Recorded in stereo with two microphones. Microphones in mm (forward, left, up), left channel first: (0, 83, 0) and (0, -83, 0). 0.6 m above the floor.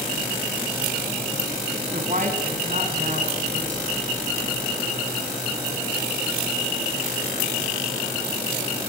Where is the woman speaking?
50° right (ahead or behind), 4.5 m.